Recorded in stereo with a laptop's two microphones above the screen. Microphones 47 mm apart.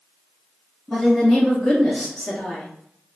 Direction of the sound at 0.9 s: 10° left (ahead or behind).